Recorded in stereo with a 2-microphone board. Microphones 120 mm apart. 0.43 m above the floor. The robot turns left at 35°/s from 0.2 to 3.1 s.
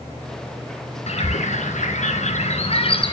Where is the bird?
115° left, 2.5 m; by 3.1 s 45° left, 2.5 m.